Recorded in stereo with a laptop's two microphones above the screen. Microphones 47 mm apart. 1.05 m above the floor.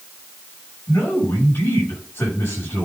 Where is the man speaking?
45° left (ahead or behind), 7 m.